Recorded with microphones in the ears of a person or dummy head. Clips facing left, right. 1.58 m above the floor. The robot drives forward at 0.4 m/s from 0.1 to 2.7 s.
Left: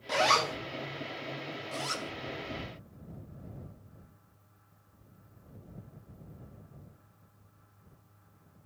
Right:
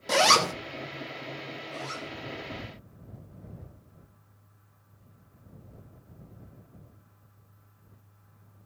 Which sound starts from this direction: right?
A zipper, at 0.1 s.